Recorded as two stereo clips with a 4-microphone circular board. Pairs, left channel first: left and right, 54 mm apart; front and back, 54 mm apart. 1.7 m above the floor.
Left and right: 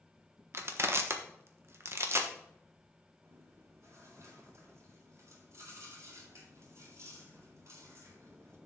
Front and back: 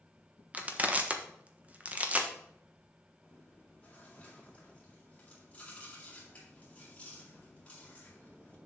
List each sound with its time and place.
0.5 s crushing: 120° right, 1.2 m
3.2 s chewing: 65° right, 3.5 m